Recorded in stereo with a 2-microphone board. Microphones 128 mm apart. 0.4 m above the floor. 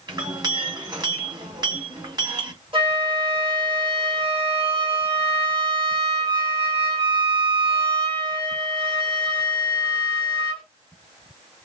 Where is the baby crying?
No baby crying in this recording.